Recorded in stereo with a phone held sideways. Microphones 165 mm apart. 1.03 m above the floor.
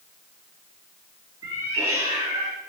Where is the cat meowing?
20° right (ahead or behind), 6 m.